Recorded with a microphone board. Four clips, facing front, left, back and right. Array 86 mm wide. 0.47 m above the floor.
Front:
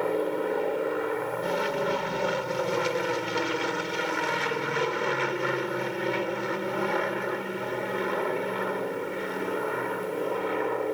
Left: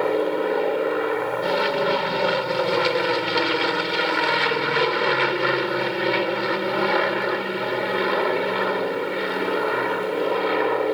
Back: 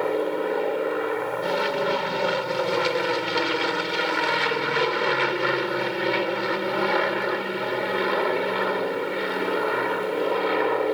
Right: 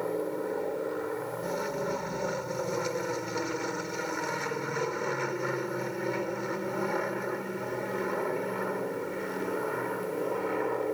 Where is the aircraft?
110° left; by 11.0 s 125° left.